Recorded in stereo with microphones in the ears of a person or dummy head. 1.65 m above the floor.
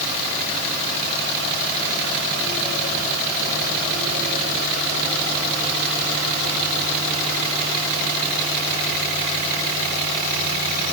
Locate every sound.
Only background noise.